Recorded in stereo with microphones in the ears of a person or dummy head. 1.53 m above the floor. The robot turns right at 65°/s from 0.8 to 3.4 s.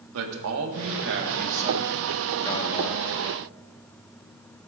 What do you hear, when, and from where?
0.1 s a man speaking: 95° right, 1.4 m; by 3.1 s 55° left, 1.4 m